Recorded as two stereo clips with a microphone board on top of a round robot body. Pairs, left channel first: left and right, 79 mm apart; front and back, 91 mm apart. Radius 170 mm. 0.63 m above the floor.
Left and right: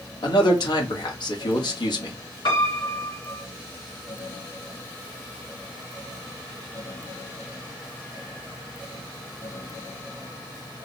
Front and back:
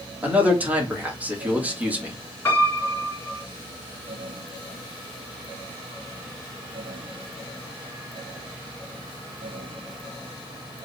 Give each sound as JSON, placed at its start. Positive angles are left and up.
{"t": 0.2, "sound": "a man speaking", "azimuth_deg": 105, "distance_m": 1.7}
{"t": 2.5, "sound": "a piano", "azimuth_deg": 70, "distance_m": 1.4}